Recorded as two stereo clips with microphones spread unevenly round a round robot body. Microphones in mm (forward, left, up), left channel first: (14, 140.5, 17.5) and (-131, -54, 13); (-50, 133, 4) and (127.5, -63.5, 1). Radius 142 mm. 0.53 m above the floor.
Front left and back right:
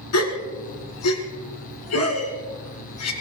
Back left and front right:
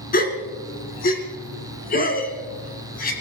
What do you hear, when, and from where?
0.1 s a gasp: 75° left, 2 m